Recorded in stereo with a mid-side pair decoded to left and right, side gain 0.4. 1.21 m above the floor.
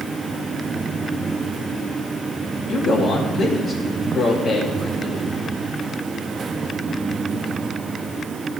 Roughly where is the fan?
Ahead right.